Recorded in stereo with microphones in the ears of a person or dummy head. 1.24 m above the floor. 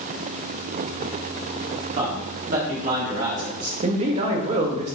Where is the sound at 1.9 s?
45° right (ahead or behind), 1.1 m; by 3.7 s 50° right (ahead or behind), 2.5 m.